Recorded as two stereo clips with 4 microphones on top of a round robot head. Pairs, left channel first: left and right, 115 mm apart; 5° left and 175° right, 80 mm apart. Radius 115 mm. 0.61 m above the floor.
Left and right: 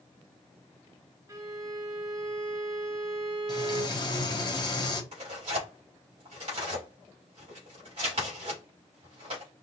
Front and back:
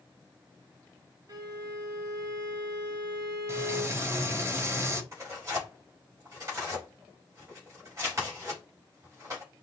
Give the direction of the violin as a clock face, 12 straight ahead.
5 o'clock.